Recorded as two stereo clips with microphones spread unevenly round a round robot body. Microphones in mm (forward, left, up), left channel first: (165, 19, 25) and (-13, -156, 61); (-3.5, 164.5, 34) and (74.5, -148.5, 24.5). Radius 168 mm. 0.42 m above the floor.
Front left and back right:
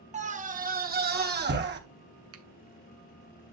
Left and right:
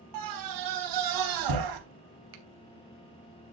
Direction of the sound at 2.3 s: 105° right.